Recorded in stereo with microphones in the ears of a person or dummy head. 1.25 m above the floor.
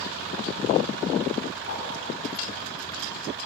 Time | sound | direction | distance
1.7 | a whoosh | 80° left | 6.5 m